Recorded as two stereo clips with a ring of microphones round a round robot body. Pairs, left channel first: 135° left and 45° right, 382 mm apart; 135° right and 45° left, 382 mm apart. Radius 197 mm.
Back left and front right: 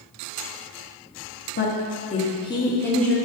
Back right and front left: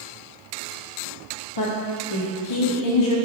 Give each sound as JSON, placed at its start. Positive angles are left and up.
{"t": 1.6, "sound": "a woman speaking", "azimuth_deg": -165, "distance_m": 1.5}